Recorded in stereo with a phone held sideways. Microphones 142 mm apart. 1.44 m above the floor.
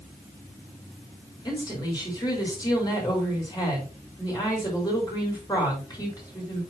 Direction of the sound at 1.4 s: 30° left (ahead or behind).